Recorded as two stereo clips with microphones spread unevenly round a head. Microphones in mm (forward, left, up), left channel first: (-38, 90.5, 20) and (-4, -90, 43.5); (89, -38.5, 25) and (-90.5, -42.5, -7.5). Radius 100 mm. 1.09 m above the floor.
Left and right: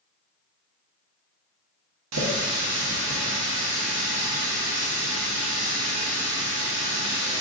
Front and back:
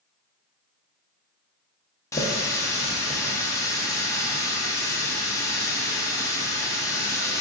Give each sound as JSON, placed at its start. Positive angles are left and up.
{"t": 2.1, "sound": "a running tap", "azimuth_deg": -70, "distance_m": 0.7}